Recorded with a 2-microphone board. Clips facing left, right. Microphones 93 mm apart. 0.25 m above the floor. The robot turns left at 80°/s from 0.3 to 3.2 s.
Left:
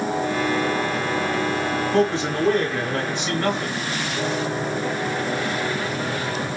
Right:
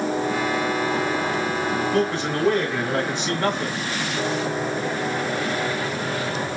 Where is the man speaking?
60° left, 1.2 m; by 3.8 s 40° right, 1.2 m.